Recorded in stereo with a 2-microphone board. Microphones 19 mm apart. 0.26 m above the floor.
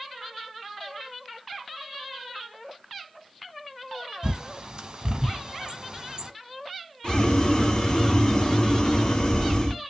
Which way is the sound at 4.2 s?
45° right (ahead or behind).